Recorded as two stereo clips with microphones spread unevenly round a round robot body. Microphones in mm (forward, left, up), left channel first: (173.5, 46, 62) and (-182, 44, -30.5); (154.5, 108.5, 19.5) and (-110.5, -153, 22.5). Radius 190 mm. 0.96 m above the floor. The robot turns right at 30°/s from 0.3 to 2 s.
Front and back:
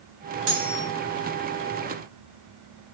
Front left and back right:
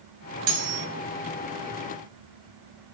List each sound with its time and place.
0.5 s cutlery clinking: 120° right, 2 m; by 0.9 s 110° right, 2 m